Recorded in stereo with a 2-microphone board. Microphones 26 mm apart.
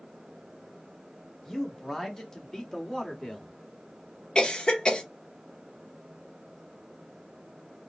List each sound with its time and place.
1.4 s a man speaking: 15° left (ahead or behind), 1.1 m
4.3 s a cough: 35° left (ahead or behind), 0.9 m